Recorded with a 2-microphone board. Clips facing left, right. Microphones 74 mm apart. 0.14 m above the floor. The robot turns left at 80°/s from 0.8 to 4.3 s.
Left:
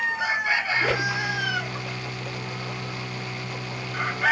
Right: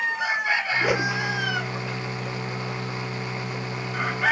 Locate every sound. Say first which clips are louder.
0.8 s a whoosh: right 1 dB; 5° right (ahead or behind); by 1.1 s 25° right (ahead or behind)